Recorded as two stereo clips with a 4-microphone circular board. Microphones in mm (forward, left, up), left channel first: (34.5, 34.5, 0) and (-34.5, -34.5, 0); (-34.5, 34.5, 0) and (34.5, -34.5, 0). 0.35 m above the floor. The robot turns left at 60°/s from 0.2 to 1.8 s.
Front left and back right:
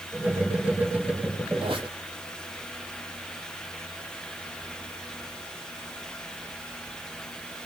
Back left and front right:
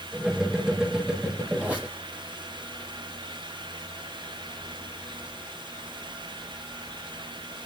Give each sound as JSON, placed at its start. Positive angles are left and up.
{"t": 1.6, "sound": "a squeak", "azimuth_deg": -110, "distance_m": 7.5}